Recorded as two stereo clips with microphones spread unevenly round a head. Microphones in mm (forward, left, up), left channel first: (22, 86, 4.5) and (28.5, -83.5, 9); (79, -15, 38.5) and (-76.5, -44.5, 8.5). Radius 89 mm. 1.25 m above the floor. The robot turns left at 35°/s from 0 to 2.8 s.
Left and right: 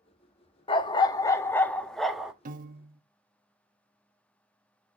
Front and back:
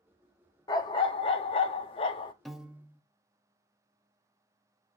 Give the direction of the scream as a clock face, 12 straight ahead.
I don't hear a scream.